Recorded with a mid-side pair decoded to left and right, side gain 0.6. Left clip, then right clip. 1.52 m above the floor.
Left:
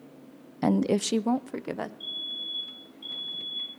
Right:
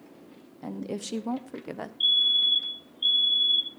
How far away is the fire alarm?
About 2 m.